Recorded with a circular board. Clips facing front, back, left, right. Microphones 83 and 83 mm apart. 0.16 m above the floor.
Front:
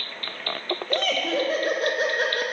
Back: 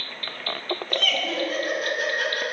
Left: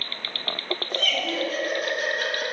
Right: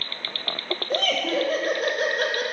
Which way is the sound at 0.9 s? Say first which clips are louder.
Front 4 dB, right 5 dB; 50° right.